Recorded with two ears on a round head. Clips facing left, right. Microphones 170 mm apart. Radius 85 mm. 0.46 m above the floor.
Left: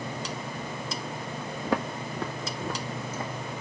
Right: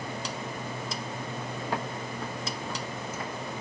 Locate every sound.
1.6 s footsteps: 60° left (ahead or behind), 1.0 m; by 3.3 s 20° left (ahead or behind), 1.4 m